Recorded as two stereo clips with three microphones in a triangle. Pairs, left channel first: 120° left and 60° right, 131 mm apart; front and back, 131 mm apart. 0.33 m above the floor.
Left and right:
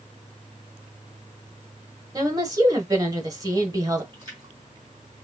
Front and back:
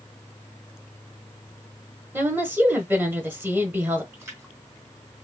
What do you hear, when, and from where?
2.1 s a woman speaking: 110° right, 1.2 m
4.1 s a splash: 110° right, 2.5 m